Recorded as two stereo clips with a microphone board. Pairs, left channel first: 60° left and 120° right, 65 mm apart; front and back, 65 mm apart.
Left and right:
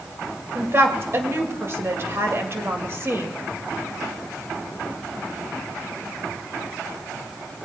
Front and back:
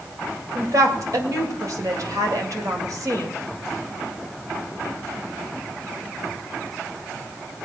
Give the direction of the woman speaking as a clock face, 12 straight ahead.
5 o'clock.